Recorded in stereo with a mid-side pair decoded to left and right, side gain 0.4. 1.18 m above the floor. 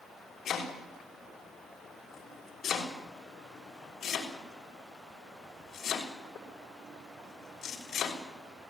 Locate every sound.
0.5 s chopping: 65° left, 6.5 m